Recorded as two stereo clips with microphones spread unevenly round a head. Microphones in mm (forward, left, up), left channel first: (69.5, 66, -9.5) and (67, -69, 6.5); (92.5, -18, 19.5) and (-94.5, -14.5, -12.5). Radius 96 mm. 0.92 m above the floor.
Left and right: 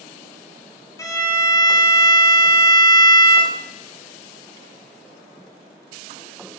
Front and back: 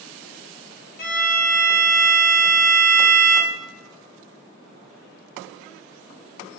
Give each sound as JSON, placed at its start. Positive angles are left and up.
{"t": 1.0, "sound": "a violin", "azimuth_deg": 35, "distance_m": 0.5}